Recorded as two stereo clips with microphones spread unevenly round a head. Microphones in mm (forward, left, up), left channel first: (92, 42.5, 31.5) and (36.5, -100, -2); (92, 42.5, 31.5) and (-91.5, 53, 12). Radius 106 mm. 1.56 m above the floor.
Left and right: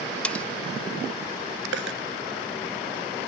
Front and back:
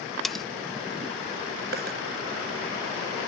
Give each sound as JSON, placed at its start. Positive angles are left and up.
{"t": 0.2, "sound": "cutlery clinking", "azimuth_deg": 65}
{"t": 1.7, "sound": "a dropped coin", "azimuth_deg": -135}